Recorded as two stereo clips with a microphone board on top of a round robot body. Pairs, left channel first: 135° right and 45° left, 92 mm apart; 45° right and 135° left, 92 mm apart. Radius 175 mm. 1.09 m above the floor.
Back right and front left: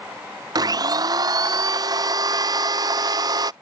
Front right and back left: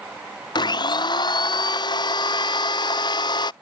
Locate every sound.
0.6 s a blender: 5° right